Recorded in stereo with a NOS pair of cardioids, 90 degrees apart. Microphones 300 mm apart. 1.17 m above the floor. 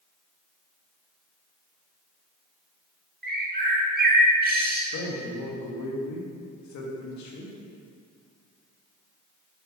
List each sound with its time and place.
3.2 s a bird: 30° right, 1.2 m
4.9 s a man speaking: 65° left, 1.7 m